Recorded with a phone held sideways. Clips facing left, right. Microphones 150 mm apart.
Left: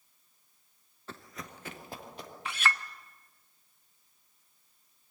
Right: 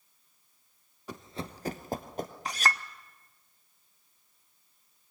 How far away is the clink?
About 0.7 m.